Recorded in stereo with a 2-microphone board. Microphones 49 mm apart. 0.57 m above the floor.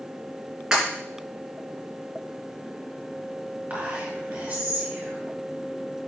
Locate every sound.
0.7 s breaking glass: 15° right (ahead or behind), 3 m
3.7 s whispering: 40° right (ahead or behind), 3 m